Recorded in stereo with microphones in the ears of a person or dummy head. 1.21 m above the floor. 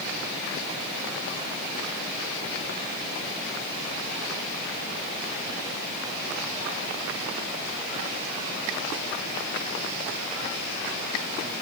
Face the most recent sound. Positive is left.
No sound to turn to.